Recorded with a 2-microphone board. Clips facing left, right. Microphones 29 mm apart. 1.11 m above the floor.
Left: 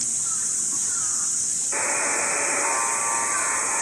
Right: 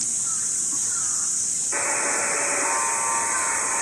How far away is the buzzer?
About 2 m.